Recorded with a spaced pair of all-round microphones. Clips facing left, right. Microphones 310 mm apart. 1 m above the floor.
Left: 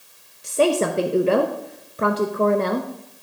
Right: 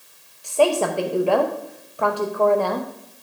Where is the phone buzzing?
I don't hear a phone buzzing.